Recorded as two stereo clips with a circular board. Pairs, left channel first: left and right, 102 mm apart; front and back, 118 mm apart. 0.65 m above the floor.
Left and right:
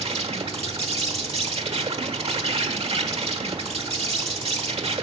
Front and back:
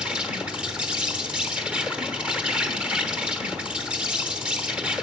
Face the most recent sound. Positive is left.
turn(degrees=-100)